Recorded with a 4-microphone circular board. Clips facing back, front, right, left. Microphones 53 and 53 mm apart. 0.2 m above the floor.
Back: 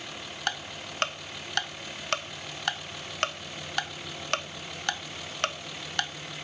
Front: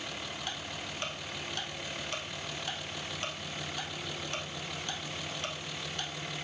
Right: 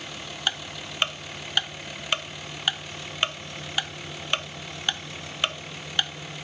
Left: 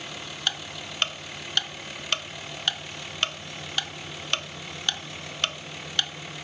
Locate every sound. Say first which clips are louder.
0.5 s ticking: back 5 dB, right 2 dB; 165° right, 0.6 m